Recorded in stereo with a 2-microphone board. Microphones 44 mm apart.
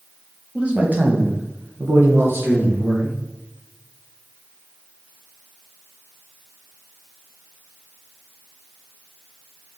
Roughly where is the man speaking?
Right.